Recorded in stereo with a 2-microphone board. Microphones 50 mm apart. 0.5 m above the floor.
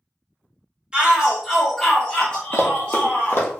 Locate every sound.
0.9 s a shout: 20° right (ahead or behind), 1.0 m; by 3.5 s 30° left (ahead or behind), 1.6 m
2.5 s running footsteps: 40° left (ahead or behind), 0.6 m; by 3.6 s 50° left (ahead or behind), 1.0 m